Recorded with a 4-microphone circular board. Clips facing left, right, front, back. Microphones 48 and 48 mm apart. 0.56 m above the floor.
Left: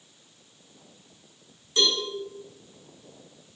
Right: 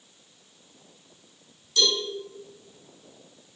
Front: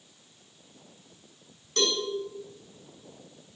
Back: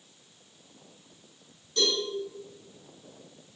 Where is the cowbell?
25° left, 6.5 m.